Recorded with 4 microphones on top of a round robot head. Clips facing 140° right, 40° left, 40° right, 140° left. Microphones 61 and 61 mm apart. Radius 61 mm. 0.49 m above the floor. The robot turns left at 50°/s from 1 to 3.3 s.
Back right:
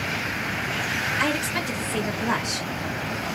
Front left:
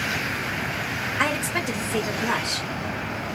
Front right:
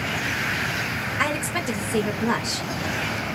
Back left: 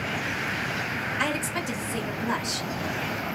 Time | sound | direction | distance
1.2 | a woman speaking | straight ahead | 2 m